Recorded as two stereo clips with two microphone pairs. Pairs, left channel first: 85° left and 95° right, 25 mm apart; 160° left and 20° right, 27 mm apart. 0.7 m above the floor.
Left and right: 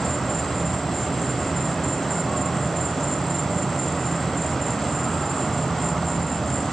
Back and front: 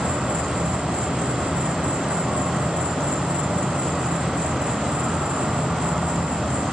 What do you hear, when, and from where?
0.0 s an insect: 5° left, 0.8 m